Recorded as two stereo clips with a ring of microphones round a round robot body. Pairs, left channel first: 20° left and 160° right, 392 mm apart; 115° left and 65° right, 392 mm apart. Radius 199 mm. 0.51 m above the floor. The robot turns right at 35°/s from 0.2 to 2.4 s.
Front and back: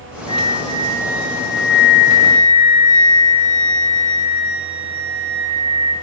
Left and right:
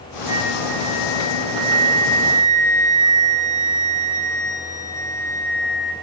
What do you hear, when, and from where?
0.3 s a flute: 25° right, 4 m; by 5.9 s 50° left, 4 m